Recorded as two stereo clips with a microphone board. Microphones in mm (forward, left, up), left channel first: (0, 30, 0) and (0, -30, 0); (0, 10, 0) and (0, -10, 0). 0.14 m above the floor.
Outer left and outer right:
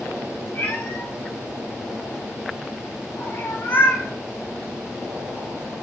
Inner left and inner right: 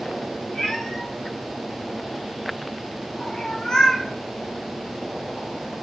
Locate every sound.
0.6 s a cat meowing: 25° left (ahead or behind), 7.5 m; by 4.1 s 35° left (ahead or behind), 1.9 m